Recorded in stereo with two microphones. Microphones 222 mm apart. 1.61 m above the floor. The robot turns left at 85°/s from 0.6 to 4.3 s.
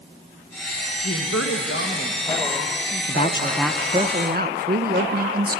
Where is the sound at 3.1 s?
50° left, 0.8 m; by 5.6 s 55° right, 0.8 m.